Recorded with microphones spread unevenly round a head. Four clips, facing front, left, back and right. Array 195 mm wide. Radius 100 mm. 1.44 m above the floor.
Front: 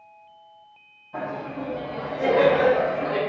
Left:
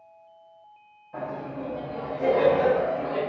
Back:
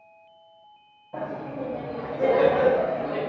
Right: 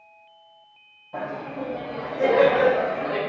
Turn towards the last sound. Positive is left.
turn(degrees=-55)